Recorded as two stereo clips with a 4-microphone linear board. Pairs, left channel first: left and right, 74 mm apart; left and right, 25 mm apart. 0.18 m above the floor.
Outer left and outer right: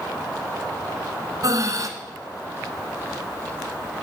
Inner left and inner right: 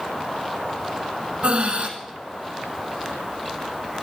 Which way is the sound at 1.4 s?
50° right (ahead or behind).